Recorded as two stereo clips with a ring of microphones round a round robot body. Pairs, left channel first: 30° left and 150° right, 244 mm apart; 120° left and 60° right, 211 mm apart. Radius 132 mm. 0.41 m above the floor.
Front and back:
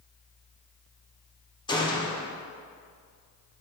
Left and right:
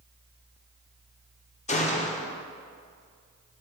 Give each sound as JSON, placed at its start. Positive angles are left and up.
{"t": 1.7, "sound": "a gunshot", "azimuth_deg": 90, "distance_m": 0.9}